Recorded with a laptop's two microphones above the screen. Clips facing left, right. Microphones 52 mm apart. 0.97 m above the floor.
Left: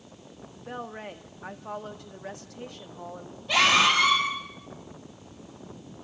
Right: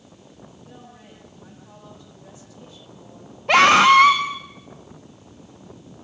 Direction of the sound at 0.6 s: 65° left (ahead or behind).